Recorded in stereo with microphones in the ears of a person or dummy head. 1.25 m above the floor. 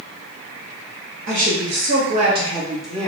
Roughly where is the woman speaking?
Right.